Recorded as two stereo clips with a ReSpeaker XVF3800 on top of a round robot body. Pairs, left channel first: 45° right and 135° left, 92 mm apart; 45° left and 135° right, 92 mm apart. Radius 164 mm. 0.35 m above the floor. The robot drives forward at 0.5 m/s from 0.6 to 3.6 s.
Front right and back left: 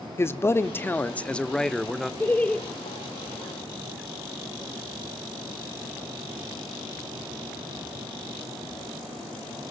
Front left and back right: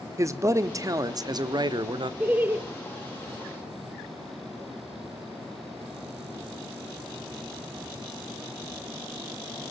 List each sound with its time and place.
0.2 s a man speaking: 95° right, 1.2 m; by 2.1 s 135° right, 1.5 m
2.2 s laughter: 80° right, 1.1 m; by 2.6 s 105° right, 1.1 m